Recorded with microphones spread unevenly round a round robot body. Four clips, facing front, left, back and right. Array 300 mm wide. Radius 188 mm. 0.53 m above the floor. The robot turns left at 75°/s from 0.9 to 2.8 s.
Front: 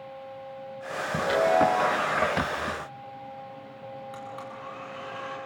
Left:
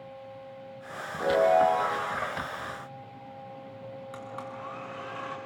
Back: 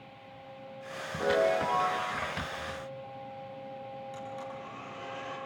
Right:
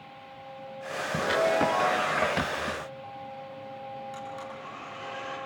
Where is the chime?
135° left, 2.5 m; by 2.2 s 65° left, 2.5 m.